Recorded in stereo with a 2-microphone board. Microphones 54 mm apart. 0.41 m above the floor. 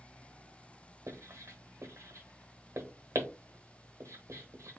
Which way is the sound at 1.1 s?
60° right (ahead or behind).